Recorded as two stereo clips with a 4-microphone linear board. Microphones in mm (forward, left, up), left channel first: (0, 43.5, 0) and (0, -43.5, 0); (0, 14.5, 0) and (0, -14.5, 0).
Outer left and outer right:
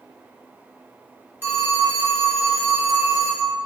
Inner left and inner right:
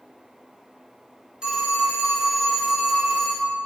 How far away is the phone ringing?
About 0.7 m.